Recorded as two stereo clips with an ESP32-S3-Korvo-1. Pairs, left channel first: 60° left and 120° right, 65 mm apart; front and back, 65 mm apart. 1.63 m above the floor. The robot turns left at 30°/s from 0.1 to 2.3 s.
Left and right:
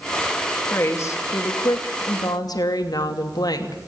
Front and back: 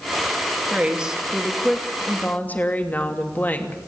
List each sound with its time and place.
0.7 s a woman speaking: 110° left, 2.5 m; by 3.8 s 65° left, 2.5 m